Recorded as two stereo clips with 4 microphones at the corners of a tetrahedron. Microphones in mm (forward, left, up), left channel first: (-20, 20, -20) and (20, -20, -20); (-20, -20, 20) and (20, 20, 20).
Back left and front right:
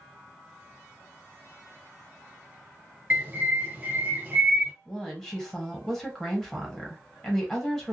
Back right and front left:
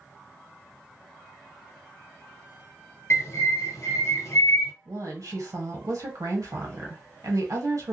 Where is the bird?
100° right, 0.7 m.